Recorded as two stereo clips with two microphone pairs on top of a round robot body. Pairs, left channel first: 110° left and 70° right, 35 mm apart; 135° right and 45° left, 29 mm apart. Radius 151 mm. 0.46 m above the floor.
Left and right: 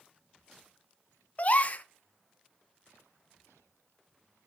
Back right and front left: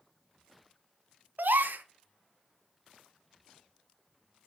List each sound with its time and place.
1.4 s a gasp: 60° left, 0.5 m